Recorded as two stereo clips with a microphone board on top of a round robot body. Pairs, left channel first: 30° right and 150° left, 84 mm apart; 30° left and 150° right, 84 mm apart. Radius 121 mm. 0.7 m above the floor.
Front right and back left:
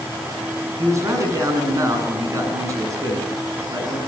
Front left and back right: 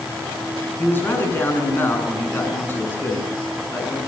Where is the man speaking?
95° left, 8 m.